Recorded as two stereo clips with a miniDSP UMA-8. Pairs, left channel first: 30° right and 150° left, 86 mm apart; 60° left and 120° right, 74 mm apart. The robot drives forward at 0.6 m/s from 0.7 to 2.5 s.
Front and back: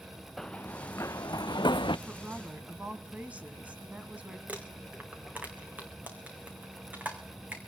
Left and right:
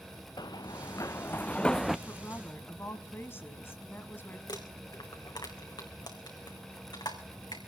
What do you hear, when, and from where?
0.4 s running footsteps: 55° left, 0.8 m; by 2.0 s 30° right, 0.7 m
2.1 s a woman speaking: 70° left, 1.5 m; by 4.4 s 85° left, 1.5 m
4.5 s crumpling: 75° left, 3 m